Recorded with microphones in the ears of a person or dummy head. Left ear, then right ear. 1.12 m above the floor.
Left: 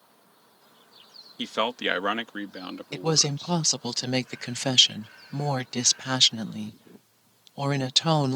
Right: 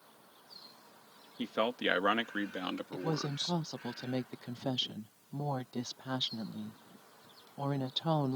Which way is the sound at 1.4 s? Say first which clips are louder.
Left 6 dB; 40° left (ahead or behind).